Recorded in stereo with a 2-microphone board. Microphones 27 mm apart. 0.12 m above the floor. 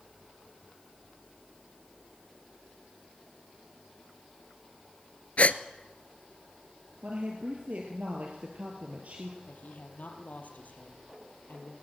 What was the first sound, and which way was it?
A gasp, 50° left (ahead or behind).